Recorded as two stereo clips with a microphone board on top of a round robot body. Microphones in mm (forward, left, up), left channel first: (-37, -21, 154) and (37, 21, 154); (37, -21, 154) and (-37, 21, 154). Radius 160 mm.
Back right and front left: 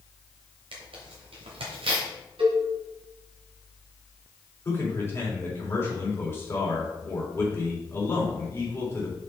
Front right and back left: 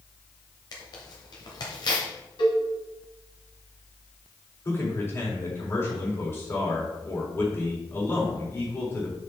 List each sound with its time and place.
0.7 s tearing paper: 15° left, 1.2 m
2.4 s a cowbell: 10° left, 1.5 m
4.7 s a man speaking: 90° right, 3.5 m